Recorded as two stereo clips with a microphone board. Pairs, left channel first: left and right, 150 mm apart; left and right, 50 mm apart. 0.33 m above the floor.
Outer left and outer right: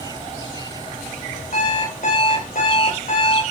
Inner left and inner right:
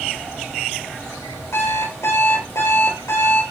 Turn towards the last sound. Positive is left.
turn(degrees=70)  # may be behind; listen again after turning